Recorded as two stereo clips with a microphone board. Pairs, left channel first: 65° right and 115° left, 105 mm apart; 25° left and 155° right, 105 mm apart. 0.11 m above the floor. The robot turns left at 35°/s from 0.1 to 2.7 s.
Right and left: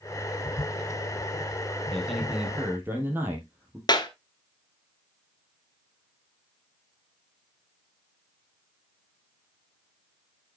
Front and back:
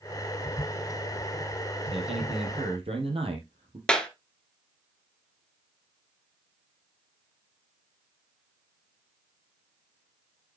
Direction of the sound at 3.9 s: 55° right.